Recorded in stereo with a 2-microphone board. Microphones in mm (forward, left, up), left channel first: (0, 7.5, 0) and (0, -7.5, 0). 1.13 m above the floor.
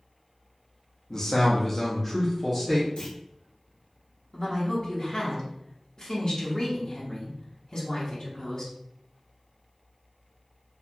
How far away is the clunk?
About 1.0 m.